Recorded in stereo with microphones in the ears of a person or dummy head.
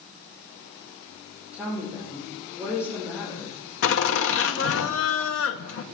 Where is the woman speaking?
10° right (ahead or behind), 3.5 m.